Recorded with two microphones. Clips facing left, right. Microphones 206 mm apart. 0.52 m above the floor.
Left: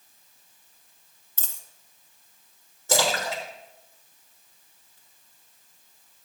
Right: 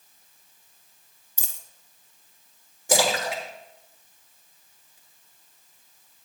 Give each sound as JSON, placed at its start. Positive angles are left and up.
{"t": 1.4, "sound": "a dropped coin", "side_deg": -15, "distance_m": 0.6}
{"t": 2.9, "sound": "a splash", "side_deg": -15, "distance_m": 1.7}